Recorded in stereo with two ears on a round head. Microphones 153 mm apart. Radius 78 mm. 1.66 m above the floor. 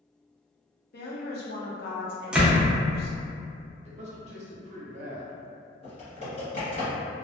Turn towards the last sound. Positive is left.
turn(degrees=35)  # may be behind; listen again after turning